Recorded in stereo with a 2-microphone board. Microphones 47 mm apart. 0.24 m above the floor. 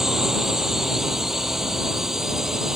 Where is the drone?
10° right (ahead or behind).